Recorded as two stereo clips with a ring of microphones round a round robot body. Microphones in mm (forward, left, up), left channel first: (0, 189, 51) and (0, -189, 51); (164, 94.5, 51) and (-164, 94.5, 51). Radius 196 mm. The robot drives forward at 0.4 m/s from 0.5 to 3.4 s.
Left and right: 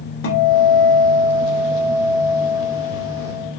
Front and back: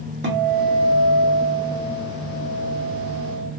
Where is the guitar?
135° left, 1.5 m; by 3.5 s 160° left, 2.5 m.